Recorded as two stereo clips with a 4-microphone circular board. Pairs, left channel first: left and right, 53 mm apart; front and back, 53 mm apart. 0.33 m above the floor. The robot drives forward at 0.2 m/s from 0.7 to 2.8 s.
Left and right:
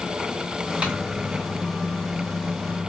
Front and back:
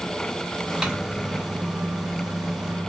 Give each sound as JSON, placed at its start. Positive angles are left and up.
{"t": 0.8, "sound": "a microwave", "azimuth_deg": -125, "distance_m": 0.8}